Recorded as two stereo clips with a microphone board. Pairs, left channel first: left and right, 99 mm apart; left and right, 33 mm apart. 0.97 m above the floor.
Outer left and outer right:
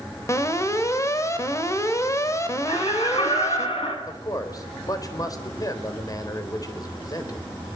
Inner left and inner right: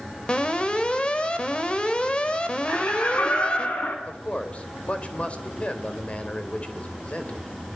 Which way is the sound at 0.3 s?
30° left (ahead or behind).